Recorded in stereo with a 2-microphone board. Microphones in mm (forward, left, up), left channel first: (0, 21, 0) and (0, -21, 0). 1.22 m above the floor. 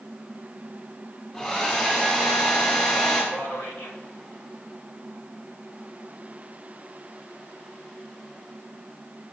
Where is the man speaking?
70° left (ahead or behind), 2 m.